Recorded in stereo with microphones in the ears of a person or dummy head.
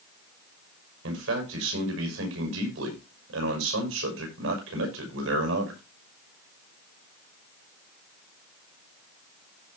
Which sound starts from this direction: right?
A man speaking, at 1.0 s.